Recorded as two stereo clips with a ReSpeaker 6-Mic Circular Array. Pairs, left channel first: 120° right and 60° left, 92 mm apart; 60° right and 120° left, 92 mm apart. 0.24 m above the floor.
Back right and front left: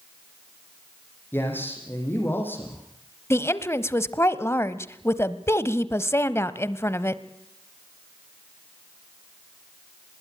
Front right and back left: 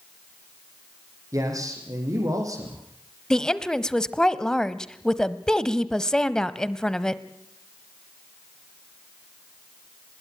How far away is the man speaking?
About 8.5 m.